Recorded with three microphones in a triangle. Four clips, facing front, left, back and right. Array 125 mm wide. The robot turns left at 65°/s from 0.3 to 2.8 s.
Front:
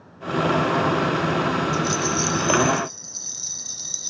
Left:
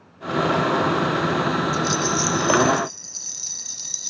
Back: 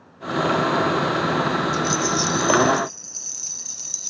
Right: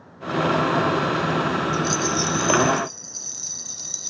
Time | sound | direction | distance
1.7 | a rattle | 175° left | 0.6 m